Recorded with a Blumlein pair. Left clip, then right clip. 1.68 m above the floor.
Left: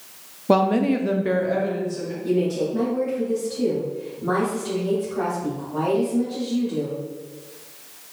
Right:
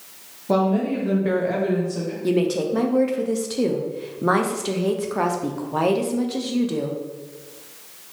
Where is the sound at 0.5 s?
65° left, 0.8 m; by 2.1 s 30° right, 1.4 m.